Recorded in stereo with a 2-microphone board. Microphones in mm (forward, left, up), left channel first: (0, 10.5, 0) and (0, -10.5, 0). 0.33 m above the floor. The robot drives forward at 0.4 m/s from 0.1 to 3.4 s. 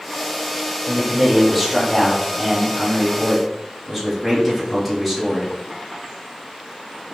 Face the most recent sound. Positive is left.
turn(degrees=0)  # may be behind; listen again after turning